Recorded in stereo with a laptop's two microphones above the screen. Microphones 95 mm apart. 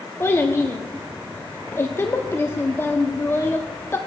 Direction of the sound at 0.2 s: 25° left (ahead or behind).